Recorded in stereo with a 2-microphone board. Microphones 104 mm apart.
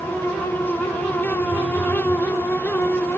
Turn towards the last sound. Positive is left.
turn(degrees=30)  # may be behind; listen again after turning